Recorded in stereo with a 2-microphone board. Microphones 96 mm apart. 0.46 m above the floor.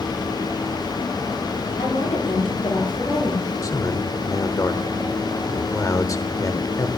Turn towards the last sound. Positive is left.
turn(degrees=40)  # may be behind; listen again after turning